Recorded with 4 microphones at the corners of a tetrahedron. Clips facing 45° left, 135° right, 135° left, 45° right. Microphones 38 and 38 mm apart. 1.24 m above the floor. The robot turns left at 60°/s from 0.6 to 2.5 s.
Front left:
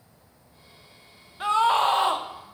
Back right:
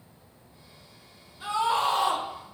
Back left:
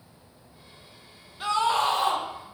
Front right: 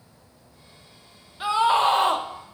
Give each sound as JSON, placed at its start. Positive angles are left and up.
{"t": 1.4, "sound": "a scream", "azimuth_deg": 35, "distance_m": 1.1}